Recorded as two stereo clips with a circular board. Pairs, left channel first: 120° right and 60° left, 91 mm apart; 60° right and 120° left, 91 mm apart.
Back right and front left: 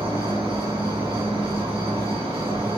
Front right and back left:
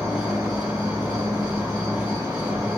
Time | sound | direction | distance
0.0 | an insect | 70° left | 1.3 m